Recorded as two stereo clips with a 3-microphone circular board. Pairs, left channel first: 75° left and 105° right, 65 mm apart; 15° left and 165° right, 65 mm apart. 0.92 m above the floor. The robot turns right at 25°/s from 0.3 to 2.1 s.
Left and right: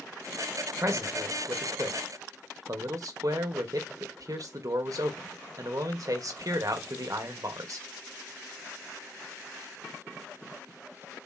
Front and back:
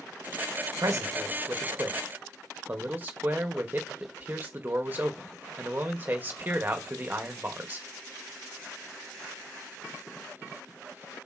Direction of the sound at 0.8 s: 140° right.